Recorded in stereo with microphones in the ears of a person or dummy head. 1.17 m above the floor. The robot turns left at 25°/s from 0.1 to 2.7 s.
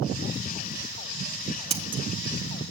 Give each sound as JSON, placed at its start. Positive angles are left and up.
{"t": 1.7, "sound": "scissors", "side_deg": -25, "distance_m": 0.6}